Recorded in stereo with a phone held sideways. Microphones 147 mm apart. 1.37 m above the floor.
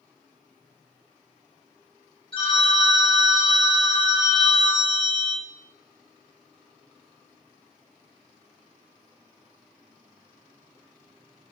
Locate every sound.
2.3 s a phone ringing: 35° left (ahead or behind), 0.8 m